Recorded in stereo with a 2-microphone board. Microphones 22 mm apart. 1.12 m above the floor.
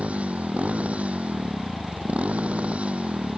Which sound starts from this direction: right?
A motorcycle, at 0.0 s.